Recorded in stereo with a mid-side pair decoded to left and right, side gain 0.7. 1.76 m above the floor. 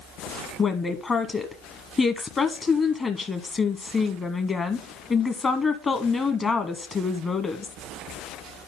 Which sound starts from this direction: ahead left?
A woman speaking, at 0.6 s.